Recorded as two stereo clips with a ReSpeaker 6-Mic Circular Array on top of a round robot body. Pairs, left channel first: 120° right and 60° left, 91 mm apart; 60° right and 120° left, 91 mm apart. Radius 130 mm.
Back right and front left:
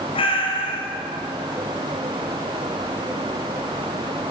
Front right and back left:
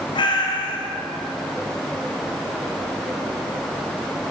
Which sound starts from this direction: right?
A cat meowing, at 0.1 s.